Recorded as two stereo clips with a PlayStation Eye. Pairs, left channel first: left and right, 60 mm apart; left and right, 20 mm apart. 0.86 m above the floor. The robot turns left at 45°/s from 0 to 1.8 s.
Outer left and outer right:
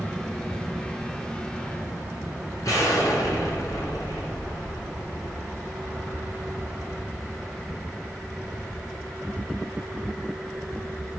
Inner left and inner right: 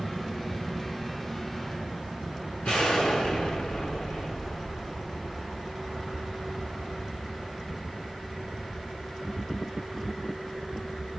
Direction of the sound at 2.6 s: 70° left (ahead or behind).